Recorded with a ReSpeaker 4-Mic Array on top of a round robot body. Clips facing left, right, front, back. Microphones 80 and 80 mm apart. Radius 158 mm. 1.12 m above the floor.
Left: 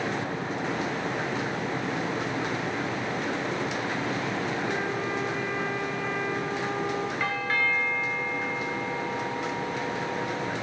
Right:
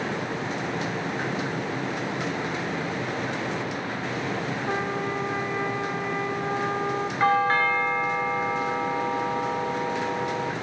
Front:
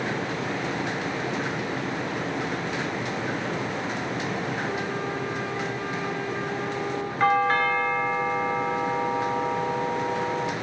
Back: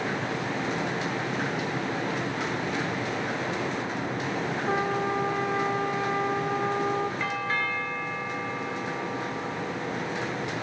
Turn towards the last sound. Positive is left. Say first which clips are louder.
# right 11 dB, front 8 dB
turn(degrees=-40)